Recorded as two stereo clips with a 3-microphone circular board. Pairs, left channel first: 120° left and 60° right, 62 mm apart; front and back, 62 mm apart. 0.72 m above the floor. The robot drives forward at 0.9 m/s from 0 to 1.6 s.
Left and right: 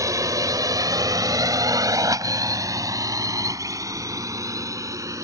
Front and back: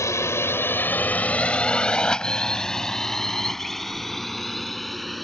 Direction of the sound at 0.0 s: 35° right.